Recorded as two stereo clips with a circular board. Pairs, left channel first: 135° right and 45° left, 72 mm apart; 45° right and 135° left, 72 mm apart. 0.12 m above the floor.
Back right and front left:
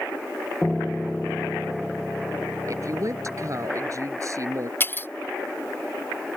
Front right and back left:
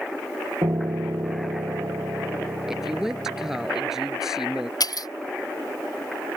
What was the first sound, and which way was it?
A piano, 140° left.